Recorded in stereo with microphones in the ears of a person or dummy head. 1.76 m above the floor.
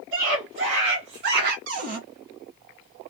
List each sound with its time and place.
0.1 s a scream: 75° right (ahead or behind), 3 m; by 1.6 s 55° right (ahead or behind), 1.3 m
1.7 s a cupboard door: 55° right (ahead or behind), 1.7 m